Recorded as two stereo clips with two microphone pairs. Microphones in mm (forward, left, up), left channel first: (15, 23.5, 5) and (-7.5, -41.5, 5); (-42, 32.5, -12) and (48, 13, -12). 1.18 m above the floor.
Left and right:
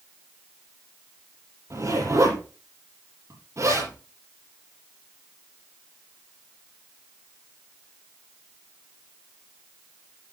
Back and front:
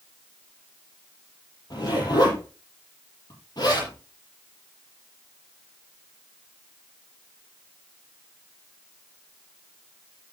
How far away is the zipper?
About 8 m.